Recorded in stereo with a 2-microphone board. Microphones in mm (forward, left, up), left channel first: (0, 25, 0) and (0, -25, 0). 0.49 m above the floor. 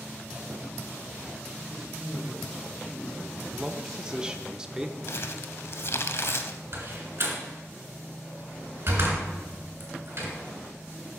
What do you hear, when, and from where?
1.7 s a man speaking: 15° left (ahead or behind), 4 m
3.5 s a man speaking: 15° right (ahead or behind), 0.7 m
5.1 s crumpling: 60° left (ahead or behind), 0.6 m
6.7 s a door slam: 50° right (ahead or behind), 2.5 m